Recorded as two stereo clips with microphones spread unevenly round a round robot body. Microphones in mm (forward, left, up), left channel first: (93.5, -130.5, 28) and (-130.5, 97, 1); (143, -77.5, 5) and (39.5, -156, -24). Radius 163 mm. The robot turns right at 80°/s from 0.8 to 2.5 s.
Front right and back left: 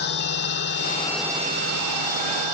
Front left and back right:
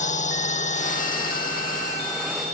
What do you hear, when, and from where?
0.0 s a drone: 15° left; by 2.5 s 145° left